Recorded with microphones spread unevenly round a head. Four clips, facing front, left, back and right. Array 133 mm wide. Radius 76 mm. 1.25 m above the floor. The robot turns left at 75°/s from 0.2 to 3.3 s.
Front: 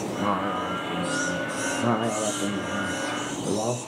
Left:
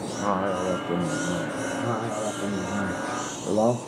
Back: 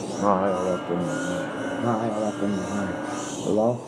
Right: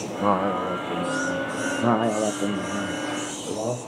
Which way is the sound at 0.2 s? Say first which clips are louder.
Right 3 dB, back 6 dB; 150° right.